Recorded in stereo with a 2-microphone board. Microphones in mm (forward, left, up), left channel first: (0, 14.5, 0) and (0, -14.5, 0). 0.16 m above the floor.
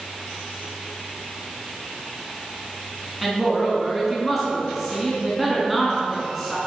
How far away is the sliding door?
I don't hear a sliding door.